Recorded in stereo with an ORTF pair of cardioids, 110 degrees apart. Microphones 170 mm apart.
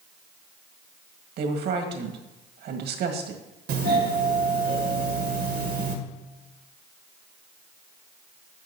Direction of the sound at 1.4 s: 70° right.